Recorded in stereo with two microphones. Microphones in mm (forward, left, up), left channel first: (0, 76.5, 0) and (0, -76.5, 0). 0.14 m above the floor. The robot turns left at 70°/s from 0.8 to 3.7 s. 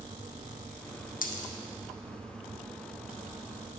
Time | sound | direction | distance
1.2 | a dropped coin | 80° left | 0.8 m